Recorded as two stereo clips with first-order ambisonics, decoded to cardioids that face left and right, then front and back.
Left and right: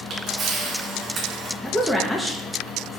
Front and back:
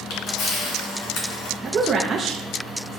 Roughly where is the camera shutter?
Ahead right.